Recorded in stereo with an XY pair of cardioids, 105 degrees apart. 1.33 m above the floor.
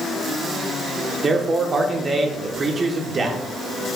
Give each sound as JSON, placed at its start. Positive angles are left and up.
{"t": 1.2, "sound": "a man speaking", "azimuth_deg": -35, "distance_m": 1.0}